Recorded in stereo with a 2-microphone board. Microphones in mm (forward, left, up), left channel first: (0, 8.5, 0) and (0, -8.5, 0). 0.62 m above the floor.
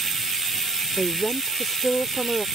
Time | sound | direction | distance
1.0 | a woman speaking | 15° left (ahead or behind) | ?